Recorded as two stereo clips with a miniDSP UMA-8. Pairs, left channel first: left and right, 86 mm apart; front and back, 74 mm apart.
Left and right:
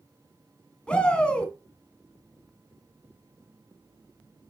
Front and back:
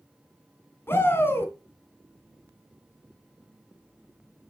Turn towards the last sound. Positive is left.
turn(degrees=20)